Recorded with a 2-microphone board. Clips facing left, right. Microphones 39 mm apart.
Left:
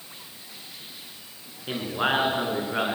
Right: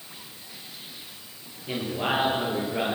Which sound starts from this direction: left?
A man speaking, at 1.7 s.